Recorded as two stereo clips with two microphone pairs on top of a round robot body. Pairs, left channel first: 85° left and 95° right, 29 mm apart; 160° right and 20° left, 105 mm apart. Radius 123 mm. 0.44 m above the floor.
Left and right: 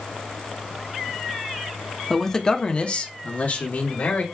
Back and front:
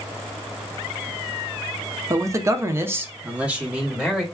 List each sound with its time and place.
2.1 s a man speaking: 5° right, 0.9 m; by 4.2 s 105° left, 1.4 m